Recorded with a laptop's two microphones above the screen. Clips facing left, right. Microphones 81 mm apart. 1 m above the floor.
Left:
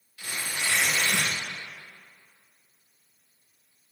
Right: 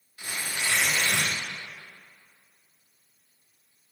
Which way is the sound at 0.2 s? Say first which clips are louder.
Even; 20° right (ahead or behind).